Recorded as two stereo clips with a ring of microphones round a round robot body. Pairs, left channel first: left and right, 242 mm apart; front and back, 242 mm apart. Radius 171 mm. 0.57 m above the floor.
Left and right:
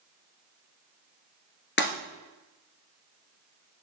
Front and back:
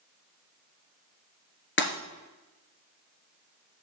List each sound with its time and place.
1.8 s breaking glass: 45° left, 2 m